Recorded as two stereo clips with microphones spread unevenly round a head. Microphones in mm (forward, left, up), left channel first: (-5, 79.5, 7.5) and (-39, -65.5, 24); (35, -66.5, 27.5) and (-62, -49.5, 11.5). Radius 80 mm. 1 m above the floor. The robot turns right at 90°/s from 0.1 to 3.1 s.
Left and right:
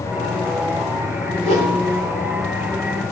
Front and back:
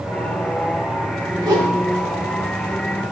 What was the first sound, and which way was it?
A whoosh, 150° right.